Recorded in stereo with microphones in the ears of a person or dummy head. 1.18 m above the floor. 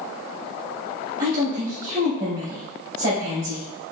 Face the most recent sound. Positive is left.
turn(degrees=-60)  # may be behind; listen again after turning